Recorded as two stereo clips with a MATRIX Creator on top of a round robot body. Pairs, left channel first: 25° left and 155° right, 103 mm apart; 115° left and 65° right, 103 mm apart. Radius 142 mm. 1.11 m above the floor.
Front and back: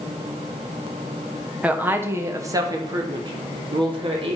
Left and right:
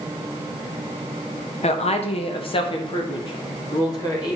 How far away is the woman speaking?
About 1.3 m.